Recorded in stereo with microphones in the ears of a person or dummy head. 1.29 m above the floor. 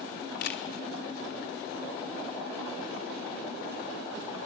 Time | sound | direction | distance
0.4 | a camera shutter | 65° left (ahead or behind) | 1.5 m